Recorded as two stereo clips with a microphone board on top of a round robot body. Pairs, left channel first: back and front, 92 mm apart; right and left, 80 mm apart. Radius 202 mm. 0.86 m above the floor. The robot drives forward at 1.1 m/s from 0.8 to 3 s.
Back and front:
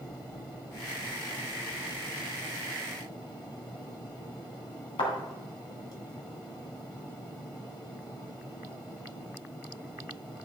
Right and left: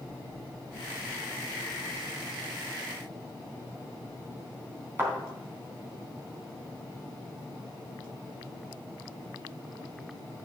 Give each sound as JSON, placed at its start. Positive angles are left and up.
{"t": 5.0, "sound": "a thud", "azimuth_deg": 155, "distance_m": 3.5}